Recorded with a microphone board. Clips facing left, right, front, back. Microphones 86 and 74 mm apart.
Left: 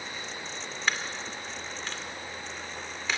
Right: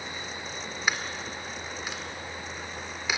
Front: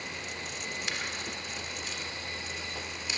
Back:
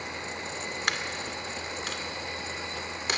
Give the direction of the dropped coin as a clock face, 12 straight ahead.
6 o'clock.